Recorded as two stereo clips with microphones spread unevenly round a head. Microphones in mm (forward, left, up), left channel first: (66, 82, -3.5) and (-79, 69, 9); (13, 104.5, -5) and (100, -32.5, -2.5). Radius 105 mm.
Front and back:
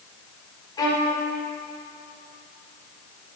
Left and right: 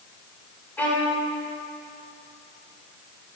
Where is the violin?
50° left, 1.5 m.